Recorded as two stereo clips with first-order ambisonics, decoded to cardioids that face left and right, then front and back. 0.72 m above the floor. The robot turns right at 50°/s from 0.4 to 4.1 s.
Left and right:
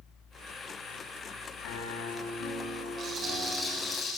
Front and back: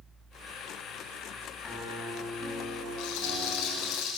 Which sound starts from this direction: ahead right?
A rattle, at 3.0 s.